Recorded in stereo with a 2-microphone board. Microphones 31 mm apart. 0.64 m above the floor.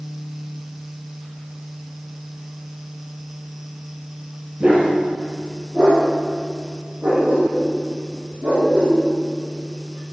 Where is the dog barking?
35° right (ahead or behind), 5 m; by 9.0 s 60° right (ahead or behind), 11 m.